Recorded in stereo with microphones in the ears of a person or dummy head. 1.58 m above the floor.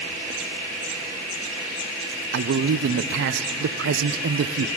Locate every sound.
2.3 s a man speaking: 60° right (ahead or behind), 0.7 m